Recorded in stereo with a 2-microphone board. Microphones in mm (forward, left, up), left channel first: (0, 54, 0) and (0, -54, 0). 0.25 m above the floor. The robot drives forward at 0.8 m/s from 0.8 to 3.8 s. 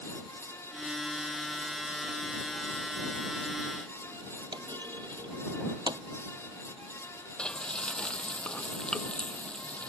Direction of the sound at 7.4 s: 10° left (ahead or behind).